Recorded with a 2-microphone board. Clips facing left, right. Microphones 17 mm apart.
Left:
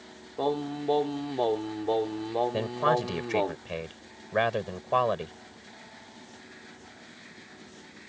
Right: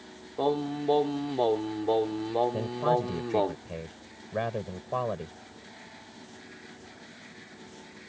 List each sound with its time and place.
0.4 s singing: 5° right (ahead or behind)
2.5 s a man speaking: 50° left (ahead or behind)